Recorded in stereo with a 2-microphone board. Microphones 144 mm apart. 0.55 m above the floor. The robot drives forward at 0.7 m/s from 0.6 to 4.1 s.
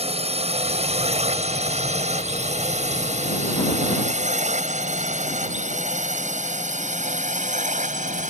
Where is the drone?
50° right (ahead or behind); by 8.3 s 65° right (ahead or behind).